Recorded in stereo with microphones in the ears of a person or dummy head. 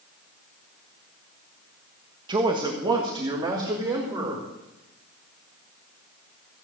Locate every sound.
2.3 s a man speaking: 25° right (ahead or behind), 1.4 m; by 4.5 s 20° right (ahead or behind), 4 m